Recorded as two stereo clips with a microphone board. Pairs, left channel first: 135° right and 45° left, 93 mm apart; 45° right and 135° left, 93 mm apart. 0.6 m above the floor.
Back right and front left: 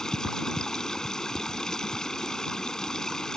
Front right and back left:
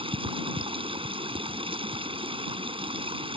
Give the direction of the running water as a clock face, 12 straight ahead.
7 o'clock.